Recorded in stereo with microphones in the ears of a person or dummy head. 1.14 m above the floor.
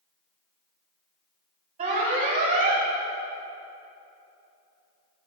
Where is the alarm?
40° right (ahead or behind), 1.6 m.